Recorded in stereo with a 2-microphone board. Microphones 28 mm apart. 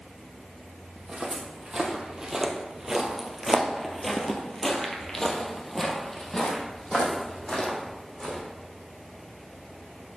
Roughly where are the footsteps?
Right.